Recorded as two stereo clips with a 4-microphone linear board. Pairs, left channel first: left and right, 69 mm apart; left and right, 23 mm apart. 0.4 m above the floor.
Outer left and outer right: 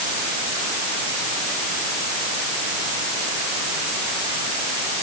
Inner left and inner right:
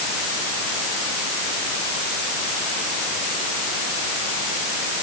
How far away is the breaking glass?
No breaking glass in this recording.